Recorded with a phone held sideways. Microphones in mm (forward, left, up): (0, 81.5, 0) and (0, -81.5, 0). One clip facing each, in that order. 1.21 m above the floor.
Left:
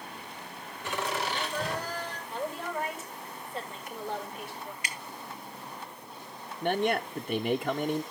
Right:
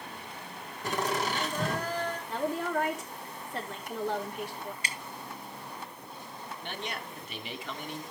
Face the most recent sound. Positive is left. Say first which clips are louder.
# left 13 dB
turn(degrees=50)  # may be behind; listen again after turning